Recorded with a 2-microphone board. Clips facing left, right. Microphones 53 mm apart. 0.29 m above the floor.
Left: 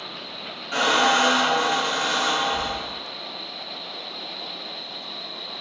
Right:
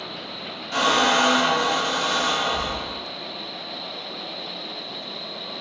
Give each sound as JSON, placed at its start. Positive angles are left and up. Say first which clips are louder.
{"t": 0.7, "sound": "a squeak", "louder": "even", "side_deg": 20, "distance_m": 1.7}